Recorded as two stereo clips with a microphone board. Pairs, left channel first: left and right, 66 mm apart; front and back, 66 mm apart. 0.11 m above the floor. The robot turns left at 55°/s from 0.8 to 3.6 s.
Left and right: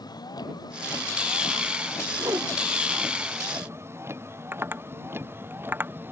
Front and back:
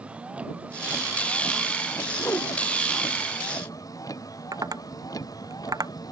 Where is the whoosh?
45° right; by 2.5 s 65° right.